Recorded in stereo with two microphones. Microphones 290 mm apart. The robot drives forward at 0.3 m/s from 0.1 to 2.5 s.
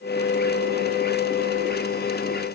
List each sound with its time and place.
Only background noise.